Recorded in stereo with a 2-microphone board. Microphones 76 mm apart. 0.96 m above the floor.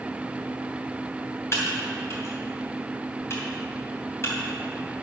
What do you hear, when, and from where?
1.5 s typing on a keyboard: 40° left (ahead or behind), 2.5 m